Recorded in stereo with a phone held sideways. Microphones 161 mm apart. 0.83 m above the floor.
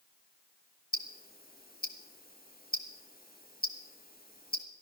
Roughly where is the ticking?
Left.